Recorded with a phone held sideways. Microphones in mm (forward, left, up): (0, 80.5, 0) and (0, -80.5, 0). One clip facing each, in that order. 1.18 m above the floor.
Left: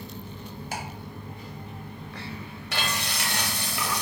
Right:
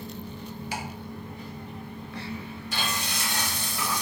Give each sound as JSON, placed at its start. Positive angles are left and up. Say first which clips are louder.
{"t": 0.7, "sound": "ticking", "louder": "even", "side_deg": 45, "distance_m": 0.8}
{"t": 2.7, "sound": "frying", "louder": "left 2 dB", "side_deg": 70, "distance_m": 0.8}